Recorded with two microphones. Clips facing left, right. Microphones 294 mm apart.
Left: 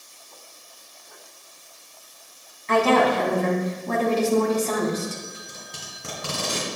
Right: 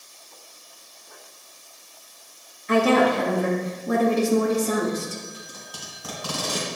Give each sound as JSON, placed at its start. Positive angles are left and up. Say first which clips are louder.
{"t": 2.7, "sound": "a woman speaking", "louder": "right 1 dB", "side_deg": -15, "distance_m": 1.4}
{"t": 5.3, "sound": "tape being pulled", "louder": "right 1 dB", "side_deg": 30, "distance_m": 1.8}